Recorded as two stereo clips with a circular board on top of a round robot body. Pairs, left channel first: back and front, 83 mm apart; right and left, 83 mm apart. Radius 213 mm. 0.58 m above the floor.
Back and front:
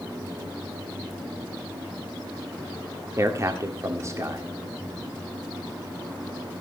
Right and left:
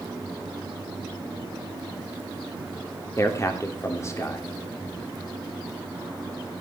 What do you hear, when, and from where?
3.2 s a man speaking: 45° right, 1.8 m